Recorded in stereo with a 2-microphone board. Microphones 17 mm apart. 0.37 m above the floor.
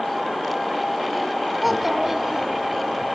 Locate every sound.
1.6 s a child speaking: 10° right (ahead or behind), 1.6 m; by 3.0 s 60° right (ahead or behind), 2.5 m